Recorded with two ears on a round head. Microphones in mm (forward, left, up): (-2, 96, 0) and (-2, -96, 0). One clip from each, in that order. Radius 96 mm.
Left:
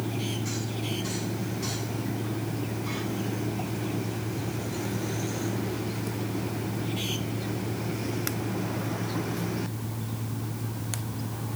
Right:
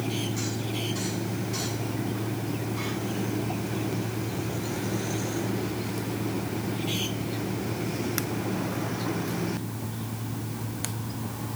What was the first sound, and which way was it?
Only background noise.